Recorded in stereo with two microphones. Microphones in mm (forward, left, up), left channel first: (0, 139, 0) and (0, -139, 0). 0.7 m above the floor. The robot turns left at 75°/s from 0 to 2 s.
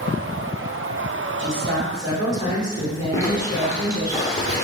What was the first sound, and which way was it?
A woman speaking, 30° left.